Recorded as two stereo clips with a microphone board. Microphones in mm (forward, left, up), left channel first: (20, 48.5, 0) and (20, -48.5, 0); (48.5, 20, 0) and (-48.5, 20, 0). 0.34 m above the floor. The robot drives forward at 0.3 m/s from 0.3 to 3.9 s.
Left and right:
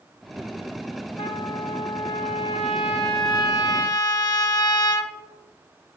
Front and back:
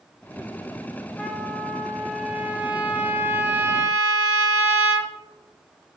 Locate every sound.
1.2 s a trumpet: 85° left, 1.3 m; by 5.1 s 120° left, 1.5 m